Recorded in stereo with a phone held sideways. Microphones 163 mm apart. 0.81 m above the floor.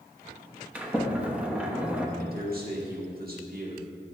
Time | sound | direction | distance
0.8 | a sliding door | 5° right (ahead or behind) | 0.9 m
2.2 | a man speaking | 60° right (ahead or behind) | 1.7 m